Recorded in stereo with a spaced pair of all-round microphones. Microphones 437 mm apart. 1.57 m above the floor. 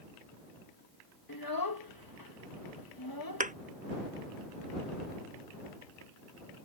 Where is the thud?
20° right (ahead or behind).